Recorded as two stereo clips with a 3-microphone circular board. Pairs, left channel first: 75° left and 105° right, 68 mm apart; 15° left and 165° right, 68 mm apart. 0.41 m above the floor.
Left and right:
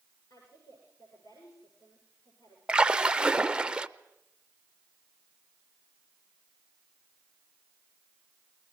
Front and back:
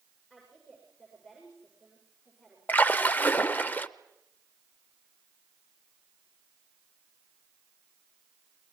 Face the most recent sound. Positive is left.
turn(degrees=-35)